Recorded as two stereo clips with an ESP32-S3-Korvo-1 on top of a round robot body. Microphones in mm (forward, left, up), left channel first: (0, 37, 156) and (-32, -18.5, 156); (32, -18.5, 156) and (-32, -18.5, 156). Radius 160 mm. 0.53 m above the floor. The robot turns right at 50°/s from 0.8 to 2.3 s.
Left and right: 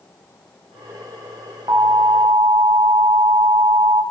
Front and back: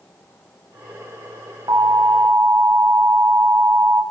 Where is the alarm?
150° right, 4 m; by 4.0 s 120° right, 4 m.